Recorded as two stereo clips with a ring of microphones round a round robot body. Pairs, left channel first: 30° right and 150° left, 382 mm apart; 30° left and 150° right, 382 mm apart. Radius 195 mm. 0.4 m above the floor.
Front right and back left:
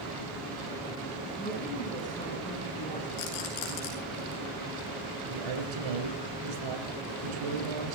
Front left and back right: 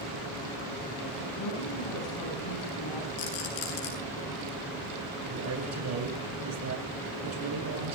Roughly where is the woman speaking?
Ahead left.